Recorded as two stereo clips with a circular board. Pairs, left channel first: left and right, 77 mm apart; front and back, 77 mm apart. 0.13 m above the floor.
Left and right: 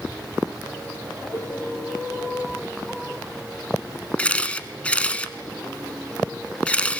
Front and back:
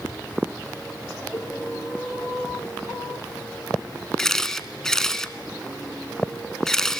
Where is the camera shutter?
65° left, 1.0 m.